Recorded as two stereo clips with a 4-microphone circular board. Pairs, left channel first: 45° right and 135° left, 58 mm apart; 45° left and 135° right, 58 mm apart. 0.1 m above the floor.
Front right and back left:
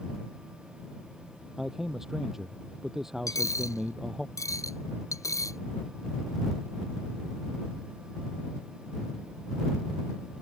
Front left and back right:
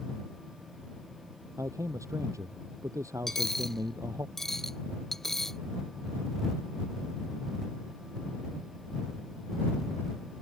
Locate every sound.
1.6 s a man speaking: 145° right
3.3 s a dropped coin: 40° right